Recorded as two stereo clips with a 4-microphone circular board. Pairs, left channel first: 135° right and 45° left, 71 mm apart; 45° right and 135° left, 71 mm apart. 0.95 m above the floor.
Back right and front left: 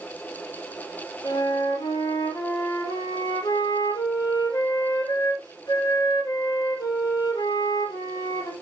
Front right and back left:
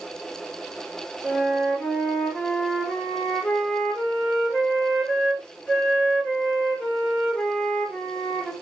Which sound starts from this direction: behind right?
A flute, at 1.2 s.